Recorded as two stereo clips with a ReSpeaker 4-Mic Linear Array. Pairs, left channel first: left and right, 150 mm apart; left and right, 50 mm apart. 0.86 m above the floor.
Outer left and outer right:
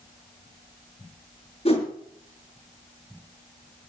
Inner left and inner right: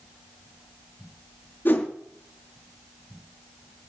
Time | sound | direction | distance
1.6 | a whoosh | 45° left (ahead or behind) | 5 m